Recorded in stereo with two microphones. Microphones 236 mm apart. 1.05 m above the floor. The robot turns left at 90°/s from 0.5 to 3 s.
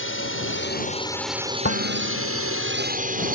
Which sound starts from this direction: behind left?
Dishes clattering, at 1.6 s.